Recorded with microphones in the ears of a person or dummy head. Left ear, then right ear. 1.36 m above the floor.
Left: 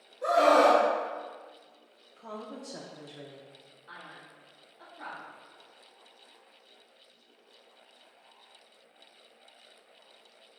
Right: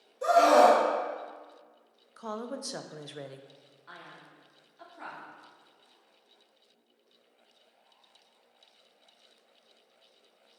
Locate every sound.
0.2 s a scream: 85° right, 2 m
2.2 s a woman speaking: 60° right (ahead or behind), 0.6 m
3.9 s a man speaking: 75° right (ahead or behind), 2.5 m